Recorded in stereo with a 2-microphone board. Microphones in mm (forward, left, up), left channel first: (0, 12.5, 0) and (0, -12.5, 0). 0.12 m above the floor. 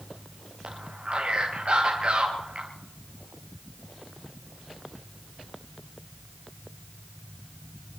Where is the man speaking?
45° right (ahead or behind), 1.9 m.